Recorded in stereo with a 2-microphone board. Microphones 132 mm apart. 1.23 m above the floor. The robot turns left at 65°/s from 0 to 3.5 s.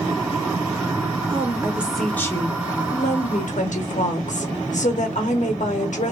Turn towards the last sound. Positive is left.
turn(degrees=80)